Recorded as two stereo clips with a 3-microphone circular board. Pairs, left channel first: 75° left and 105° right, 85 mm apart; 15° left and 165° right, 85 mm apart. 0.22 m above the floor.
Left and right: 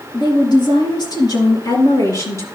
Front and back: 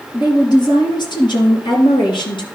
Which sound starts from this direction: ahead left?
A woman speaking, at 0.1 s.